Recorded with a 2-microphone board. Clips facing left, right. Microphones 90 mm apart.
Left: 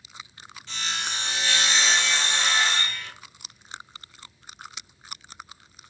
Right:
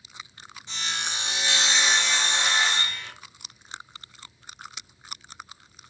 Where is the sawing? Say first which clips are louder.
Left 1 dB; 20° right (ahead or behind), 0.8 m.